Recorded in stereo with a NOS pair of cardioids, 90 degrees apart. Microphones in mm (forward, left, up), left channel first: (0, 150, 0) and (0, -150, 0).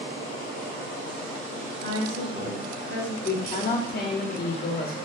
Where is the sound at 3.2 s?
35° left, 1.3 m.